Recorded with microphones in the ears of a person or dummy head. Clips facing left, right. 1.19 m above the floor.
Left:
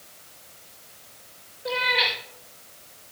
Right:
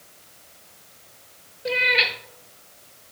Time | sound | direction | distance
1.6 | a cat meowing | 45° right (ahead or behind) | 1.7 m